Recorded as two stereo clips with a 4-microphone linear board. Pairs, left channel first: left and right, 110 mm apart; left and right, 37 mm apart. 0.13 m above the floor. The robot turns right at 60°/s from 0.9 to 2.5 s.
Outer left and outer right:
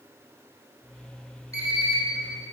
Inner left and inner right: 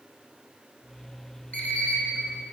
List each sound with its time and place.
1.5 s an alarm clock: 30° left (ahead or behind), 2.5 m; by 2.4 s 80° left, 2.5 m